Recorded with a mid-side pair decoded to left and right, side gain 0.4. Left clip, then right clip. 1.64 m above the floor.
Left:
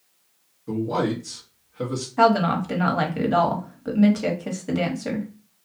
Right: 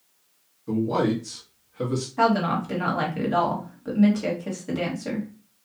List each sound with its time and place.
0.7 s a man speaking: 5° right, 1.0 m
2.2 s a woman speaking: 30° left, 1.2 m